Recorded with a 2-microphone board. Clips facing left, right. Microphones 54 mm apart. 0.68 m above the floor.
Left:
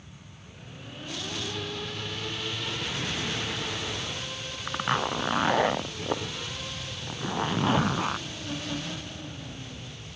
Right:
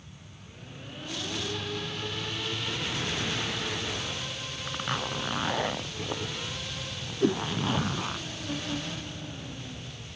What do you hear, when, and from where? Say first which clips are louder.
4.7 s a zipper: left 5 dB; 25° left (ahead or behind)
7.2 s a whoosh: right 6 dB; 65° right (ahead or behind)